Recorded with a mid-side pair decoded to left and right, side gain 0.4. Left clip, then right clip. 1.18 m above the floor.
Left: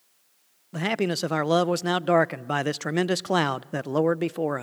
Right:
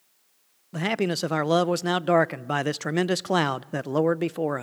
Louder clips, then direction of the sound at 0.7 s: Even; 5° right.